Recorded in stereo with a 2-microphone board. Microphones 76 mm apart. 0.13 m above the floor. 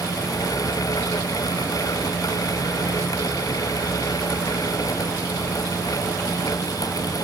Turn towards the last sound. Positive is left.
No sound to turn to.